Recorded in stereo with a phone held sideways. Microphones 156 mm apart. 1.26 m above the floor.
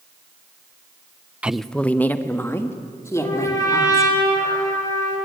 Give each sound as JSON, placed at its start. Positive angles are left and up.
{"t": 1.4, "sound": "a woman speaking", "side_deg": -10, "distance_m": 0.6}
{"t": 3.1, "sound": "a trumpet", "side_deg": 25, "distance_m": 8.0}